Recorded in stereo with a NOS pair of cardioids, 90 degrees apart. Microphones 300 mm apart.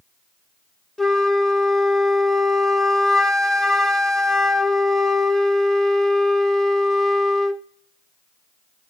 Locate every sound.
1.0 s a flute: straight ahead, 0.7 m